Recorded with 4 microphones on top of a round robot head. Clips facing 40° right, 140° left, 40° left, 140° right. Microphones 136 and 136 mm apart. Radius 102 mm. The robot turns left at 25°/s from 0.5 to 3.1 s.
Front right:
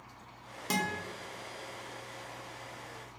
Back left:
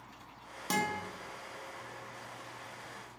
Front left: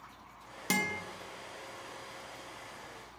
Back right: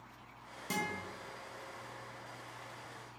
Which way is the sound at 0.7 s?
45° left.